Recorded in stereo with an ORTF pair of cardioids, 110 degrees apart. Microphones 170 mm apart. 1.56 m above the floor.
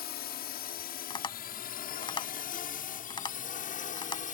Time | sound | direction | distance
0.0 | a drone | 70° left | ?
1.1 | tapping | 25° left | ?